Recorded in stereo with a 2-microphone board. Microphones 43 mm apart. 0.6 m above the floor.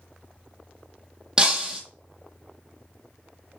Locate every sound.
1.4 s breaking glass: 20° right (ahead or behind), 0.7 m